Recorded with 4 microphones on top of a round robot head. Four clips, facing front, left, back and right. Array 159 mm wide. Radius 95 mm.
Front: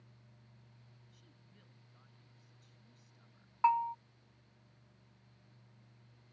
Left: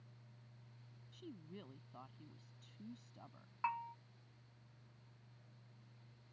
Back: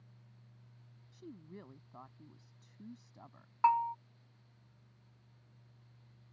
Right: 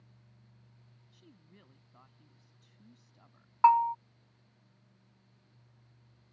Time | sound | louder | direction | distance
1.1 | a woman speaking | left 8 dB, back 15 dB | 155° left | ?
3.6 | a bell | right 19 dB, back 1 dB | 95° right | ?